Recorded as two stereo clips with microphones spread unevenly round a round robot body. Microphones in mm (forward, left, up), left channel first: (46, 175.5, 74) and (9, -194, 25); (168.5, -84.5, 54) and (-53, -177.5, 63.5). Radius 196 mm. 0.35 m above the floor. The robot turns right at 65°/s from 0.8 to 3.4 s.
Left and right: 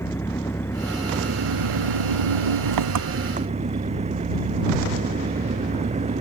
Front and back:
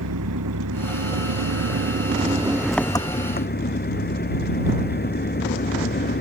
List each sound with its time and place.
0.0 s an engine running: 170° left; by 6.2 s 25° right